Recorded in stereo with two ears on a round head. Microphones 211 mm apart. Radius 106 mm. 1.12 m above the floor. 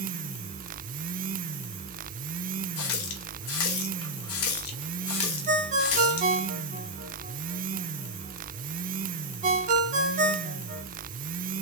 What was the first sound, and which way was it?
A running tap, 65° left (ahead or behind).